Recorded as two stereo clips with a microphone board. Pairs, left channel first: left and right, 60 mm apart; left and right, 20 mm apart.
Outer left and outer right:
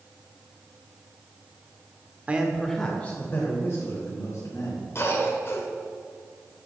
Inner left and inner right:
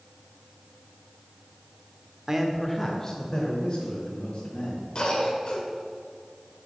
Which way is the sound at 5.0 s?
45° left (ahead or behind).